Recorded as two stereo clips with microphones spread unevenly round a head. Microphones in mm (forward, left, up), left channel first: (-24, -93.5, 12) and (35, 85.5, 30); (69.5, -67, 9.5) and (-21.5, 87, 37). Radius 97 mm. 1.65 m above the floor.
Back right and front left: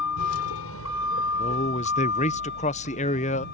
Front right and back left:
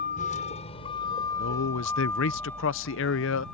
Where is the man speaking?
55° right.